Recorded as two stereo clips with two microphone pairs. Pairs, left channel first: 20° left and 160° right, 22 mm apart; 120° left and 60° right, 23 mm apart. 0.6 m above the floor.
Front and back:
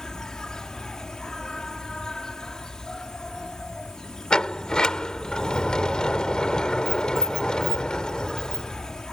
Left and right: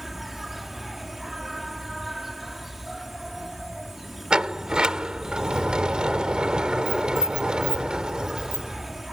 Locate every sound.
0.0 s an insect: 10° left
4.3 s a sliding door: 20° right